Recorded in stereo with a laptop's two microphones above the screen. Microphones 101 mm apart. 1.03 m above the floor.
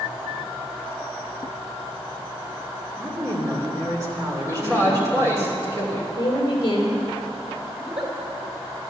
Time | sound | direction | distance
3.0 | a woman speaking | 35° right (ahead or behind) | 2 m
4.5 | a man speaking | 30° right (ahead or behind) | 3.5 m
6.2 | a woman speaking | 40° left (ahead or behind) | 3.5 m
7.8 | a giggle | 65° right (ahead or behind) | 4 m